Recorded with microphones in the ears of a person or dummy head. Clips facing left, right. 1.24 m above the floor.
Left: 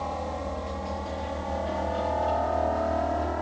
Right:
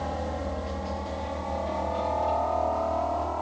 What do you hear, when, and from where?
0.0 s a helicopter: 10° right (ahead or behind); by 3.4 s 20° left (ahead or behind)